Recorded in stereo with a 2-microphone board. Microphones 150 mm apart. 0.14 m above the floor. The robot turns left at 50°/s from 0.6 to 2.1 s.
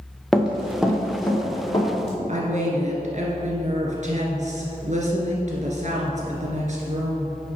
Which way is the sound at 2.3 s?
55° right (ahead or behind).